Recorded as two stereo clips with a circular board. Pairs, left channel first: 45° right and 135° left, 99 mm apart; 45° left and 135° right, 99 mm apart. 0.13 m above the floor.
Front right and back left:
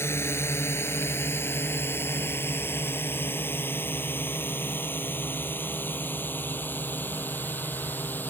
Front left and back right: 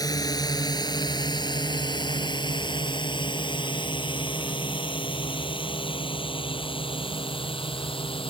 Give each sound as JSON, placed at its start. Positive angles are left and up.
{"t": 0.0, "sound": "a drone", "azimuth_deg": 10}